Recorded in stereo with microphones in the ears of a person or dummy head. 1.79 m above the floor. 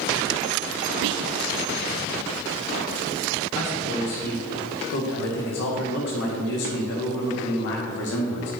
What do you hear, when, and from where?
1.0 s whispering: 75° right (ahead or behind), 0.5 m
3.5 s a man speaking: 75° left (ahead or behind), 2 m